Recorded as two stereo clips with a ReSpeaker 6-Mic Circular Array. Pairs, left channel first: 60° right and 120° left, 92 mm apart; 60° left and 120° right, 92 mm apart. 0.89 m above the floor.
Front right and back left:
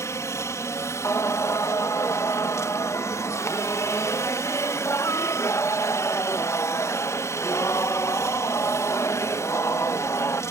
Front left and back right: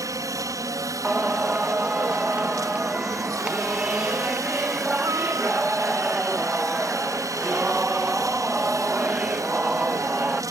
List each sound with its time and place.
0.0 s a helicopter: 100° right
1.0 s singing: 55° right